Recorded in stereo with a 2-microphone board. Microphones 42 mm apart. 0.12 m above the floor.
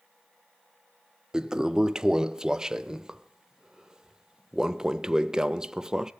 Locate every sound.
1.3 s a toilet flushing: 15° right (ahead or behind), 0.6 m